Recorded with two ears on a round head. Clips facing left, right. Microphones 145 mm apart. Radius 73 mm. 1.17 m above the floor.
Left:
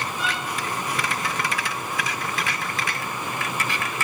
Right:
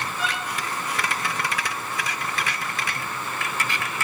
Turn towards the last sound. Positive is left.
turn(degrees=-80)